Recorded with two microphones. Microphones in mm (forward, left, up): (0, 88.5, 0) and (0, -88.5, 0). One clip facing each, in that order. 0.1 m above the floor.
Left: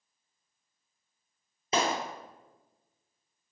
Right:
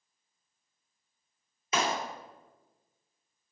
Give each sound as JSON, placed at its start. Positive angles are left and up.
{"t": 1.7, "sound": "a clap", "side_deg": 35, "distance_m": 2.0}